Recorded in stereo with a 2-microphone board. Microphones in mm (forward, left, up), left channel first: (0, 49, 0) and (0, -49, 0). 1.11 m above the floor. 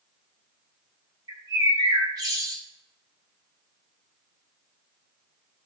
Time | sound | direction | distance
1.3 | a bird | 40° right (ahead or behind) | 2.5 m